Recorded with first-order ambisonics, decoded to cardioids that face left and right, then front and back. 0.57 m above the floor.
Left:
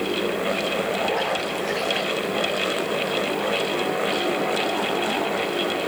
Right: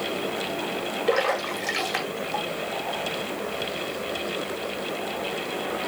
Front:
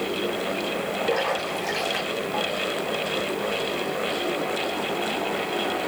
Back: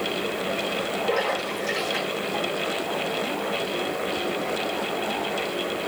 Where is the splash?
85° right, 1.6 m.